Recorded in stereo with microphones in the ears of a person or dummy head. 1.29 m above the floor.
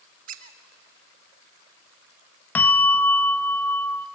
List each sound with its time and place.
0.3 s a squeak: 40° right (ahead or behind), 1.0 m
2.5 s a bell: 15° left (ahead or behind), 0.7 m